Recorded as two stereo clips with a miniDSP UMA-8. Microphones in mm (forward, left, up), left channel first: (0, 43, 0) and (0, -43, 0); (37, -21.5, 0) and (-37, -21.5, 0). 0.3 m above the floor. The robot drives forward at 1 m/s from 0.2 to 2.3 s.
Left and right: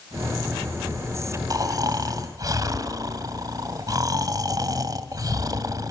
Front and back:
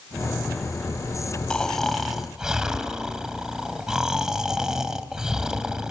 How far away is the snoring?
About 2.5 m.